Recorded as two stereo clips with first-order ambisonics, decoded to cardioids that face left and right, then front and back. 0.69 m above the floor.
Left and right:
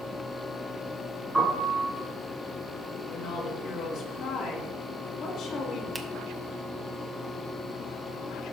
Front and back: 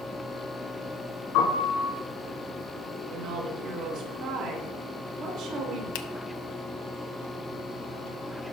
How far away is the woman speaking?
About 2 m.